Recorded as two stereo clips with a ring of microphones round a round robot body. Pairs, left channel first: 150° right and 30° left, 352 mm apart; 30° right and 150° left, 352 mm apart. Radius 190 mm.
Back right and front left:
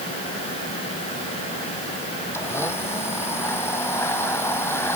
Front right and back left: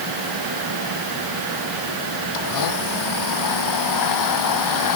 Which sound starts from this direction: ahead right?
A blender, at 2.3 s.